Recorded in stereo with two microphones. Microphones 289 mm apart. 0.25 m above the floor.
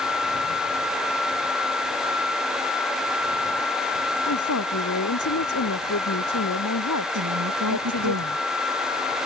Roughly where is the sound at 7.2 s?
Right.